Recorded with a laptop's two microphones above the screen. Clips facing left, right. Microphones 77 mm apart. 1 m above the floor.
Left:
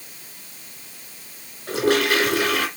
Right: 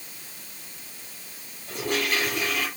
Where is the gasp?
I don't hear a gasp.